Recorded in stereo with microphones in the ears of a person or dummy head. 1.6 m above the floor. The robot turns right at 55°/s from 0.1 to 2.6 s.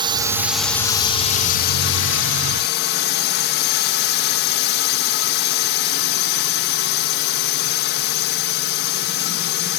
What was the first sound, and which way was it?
A drone, 25° right.